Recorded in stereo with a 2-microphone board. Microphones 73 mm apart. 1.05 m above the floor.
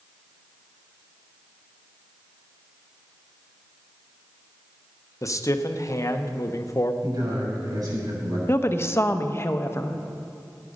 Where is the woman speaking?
35° left (ahead or behind), 0.9 m.